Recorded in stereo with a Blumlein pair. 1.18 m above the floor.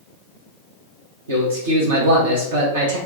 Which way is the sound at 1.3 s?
65° right.